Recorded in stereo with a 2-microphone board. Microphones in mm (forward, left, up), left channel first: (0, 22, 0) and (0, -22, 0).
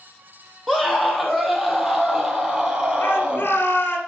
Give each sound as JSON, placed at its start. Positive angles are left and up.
{"t": 0.7, "sound": "a scream", "side_deg": 0, "distance_m": 4.0}
{"t": 3.0, "sound": "a shout", "side_deg": 55, "distance_m": 3.0}